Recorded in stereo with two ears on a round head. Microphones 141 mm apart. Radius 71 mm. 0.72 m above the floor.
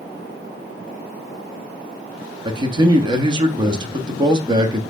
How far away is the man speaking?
About 0.9 m.